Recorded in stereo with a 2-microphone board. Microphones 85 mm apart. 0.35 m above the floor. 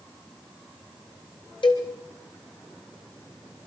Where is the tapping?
No tapping in this recording.